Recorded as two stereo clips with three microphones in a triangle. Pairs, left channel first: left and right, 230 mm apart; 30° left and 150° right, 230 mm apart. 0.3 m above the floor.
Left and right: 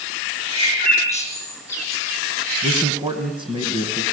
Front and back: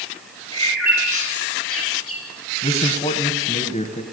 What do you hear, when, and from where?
0.5 s a bird: 15° left, 9 m
2.6 s a man speaking: 25° right, 1.7 m